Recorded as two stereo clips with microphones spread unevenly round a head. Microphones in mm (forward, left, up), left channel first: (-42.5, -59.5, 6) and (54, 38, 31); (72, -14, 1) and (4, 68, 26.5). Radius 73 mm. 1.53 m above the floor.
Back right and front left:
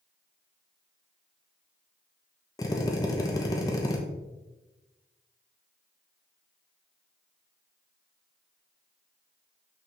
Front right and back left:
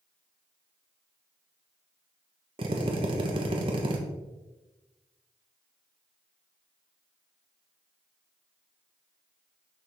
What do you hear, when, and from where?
2.6 s a drill: 155° left, 0.9 m